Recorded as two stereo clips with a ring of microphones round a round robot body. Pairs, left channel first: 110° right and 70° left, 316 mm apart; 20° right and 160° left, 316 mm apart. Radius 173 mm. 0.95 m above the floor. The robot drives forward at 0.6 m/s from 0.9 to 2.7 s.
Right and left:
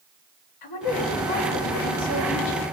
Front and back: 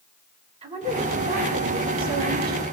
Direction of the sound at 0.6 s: 130° right.